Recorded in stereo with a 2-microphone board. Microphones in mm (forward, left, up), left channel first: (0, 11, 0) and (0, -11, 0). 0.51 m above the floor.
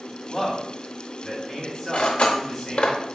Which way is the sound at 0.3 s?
15° left (ahead or behind).